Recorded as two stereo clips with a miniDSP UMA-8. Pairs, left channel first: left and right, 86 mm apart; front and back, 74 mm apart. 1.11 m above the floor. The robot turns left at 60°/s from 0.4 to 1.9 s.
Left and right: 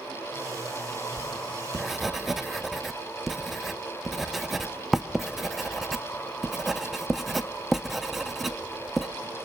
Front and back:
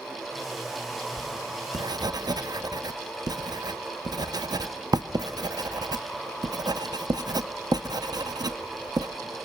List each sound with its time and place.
1.2 s writing: 135° right, 0.7 m; by 9.1 s 175° right, 0.7 m